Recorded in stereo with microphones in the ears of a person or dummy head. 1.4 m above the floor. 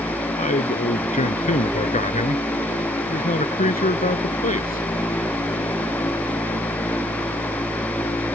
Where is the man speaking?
30° left (ahead or behind).